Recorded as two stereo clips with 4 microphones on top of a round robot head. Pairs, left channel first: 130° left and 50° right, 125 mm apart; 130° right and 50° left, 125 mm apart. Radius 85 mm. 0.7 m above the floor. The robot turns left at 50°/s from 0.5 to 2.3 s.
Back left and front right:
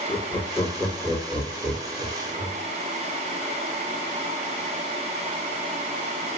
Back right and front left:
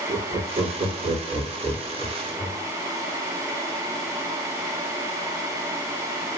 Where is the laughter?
80° left, 1.7 m; by 2.6 s 10° right, 1.7 m.